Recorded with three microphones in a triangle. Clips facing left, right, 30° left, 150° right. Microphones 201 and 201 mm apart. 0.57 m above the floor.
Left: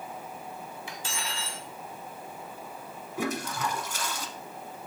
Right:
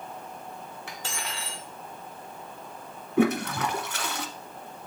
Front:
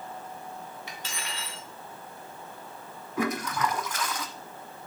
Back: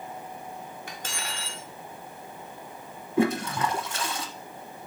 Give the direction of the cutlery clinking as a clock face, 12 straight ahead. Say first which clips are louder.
Right 2 dB, back 2 dB; 4 o'clock.